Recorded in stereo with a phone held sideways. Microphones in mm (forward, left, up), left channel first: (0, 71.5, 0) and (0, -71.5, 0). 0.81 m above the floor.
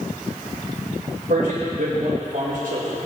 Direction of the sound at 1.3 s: 80° right.